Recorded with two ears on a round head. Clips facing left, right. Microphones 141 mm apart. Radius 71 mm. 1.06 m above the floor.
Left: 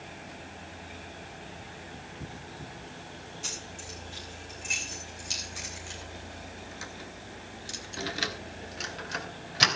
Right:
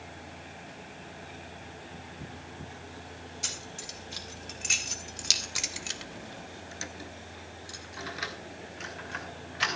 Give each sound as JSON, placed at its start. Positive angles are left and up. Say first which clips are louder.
{"t": 3.4, "sound": "keys jangling", "louder": "left 1 dB", "side_deg": -75, "distance_m": 3.5}